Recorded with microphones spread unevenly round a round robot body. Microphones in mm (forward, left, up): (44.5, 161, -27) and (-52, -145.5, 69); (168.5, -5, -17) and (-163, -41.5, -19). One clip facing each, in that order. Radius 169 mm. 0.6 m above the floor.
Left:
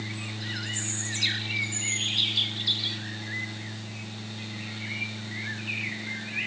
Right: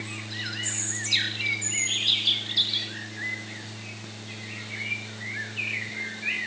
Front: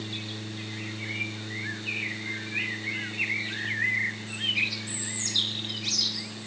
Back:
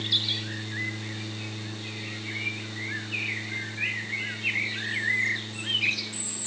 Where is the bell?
No bell in this recording.